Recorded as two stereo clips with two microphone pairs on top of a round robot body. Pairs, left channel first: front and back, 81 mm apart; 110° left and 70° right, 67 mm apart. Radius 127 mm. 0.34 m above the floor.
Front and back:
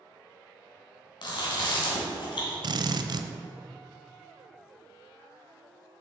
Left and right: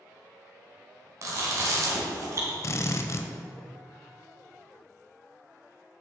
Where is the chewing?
30° right, 2.5 m.